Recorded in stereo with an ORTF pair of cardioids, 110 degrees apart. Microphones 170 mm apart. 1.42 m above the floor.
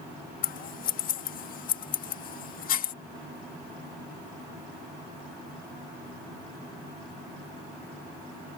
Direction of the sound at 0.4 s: 60° left.